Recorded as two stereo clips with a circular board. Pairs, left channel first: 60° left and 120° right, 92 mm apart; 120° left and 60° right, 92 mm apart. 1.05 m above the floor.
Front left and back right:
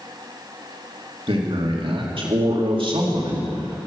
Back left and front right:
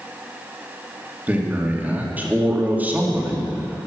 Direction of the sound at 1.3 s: 130° right.